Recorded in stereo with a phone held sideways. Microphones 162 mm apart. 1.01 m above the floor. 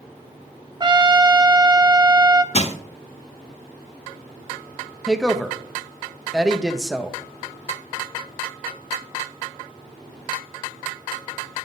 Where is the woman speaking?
Centre (ahead or behind), 0.9 m.